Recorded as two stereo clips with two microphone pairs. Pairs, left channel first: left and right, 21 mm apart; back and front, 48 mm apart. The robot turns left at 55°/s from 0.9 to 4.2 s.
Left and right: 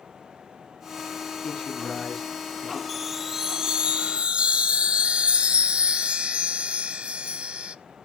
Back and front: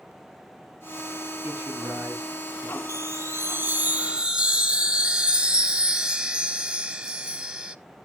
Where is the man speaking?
40° left, 5.5 m; by 2.8 s 35° right, 5.5 m.